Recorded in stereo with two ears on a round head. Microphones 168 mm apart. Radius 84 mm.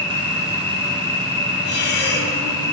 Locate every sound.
0.0 s an insect: 15° left (ahead or behind), 4 m
1.6 s breathing: 65° left (ahead or behind), 3 m